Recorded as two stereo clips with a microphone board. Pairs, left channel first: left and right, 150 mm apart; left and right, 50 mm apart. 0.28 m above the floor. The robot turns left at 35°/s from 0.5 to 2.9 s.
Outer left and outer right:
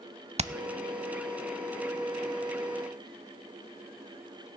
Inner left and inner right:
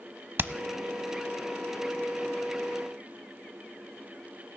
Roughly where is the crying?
I don't hear crying.